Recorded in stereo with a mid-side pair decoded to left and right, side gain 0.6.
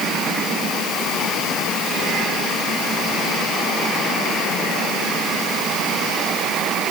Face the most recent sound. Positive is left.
No sound to turn to.